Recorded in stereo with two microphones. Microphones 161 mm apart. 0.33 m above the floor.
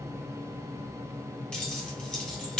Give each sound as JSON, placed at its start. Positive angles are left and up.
{"t": 1.5, "sound": "keys jangling", "side_deg": 5, "distance_m": 1.4}